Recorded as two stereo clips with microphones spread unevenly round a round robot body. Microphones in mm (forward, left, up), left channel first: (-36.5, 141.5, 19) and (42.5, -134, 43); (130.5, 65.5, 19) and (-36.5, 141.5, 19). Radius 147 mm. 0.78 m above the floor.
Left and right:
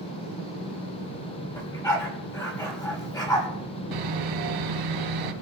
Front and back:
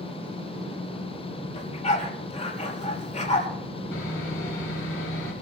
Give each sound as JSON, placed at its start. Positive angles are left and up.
{"t": 1.6, "sound": "a dog barking", "azimuth_deg": 25, "distance_m": 4.5}
{"t": 3.9, "sound": "sawing", "azimuth_deg": -75, "distance_m": 1.8}